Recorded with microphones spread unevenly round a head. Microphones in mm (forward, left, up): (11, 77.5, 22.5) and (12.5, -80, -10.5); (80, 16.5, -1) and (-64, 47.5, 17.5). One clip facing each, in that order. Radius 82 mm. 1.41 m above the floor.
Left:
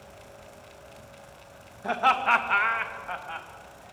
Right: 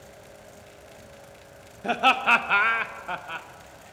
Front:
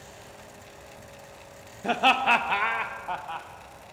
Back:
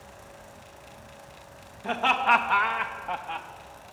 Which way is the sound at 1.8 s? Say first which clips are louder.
Right 2 dB, front 2 dB; 45° right.